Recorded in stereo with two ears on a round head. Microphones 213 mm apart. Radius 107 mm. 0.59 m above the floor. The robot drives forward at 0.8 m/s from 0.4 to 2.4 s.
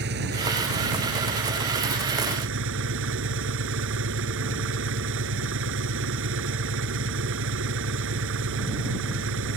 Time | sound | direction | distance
0.0 | an engine running | 45° right (ahead or behind) | ?